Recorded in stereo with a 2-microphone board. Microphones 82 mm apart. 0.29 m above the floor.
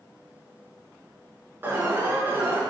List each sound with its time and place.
1.6 s an alarm: 25° right (ahead or behind), 5 m